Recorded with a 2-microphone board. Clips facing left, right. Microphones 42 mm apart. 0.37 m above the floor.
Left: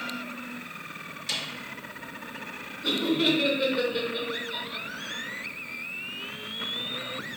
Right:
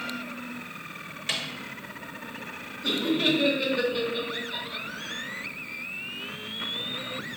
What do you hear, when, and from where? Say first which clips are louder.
1.3 s a snare drum: right 2 dB; 40° right (ahead or behind), 0.9 m
2.8 s laughter: even; 5° left (ahead or behind), 1.0 m